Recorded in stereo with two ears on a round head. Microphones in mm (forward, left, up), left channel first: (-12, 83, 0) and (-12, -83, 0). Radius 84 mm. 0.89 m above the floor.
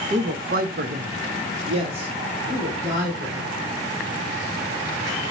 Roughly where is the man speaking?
Right.